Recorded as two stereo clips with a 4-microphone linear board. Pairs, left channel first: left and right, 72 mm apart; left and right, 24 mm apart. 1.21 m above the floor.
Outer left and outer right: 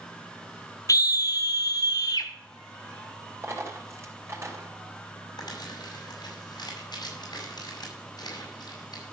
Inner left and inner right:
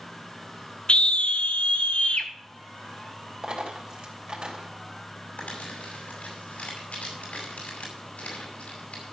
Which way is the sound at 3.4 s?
40° right (ahead or behind).